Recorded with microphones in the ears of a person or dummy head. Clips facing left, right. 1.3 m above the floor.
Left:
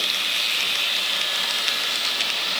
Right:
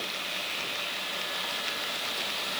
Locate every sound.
Only background noise.